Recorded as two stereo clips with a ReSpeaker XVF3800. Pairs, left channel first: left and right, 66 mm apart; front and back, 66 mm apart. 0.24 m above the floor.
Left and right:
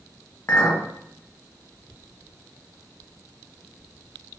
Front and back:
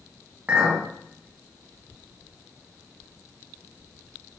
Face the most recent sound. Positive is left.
turn(degrees=120)